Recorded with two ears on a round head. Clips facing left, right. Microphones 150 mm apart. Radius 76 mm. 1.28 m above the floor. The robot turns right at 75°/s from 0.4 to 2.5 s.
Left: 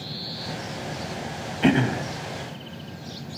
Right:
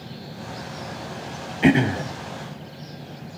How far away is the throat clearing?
About 0.7 m.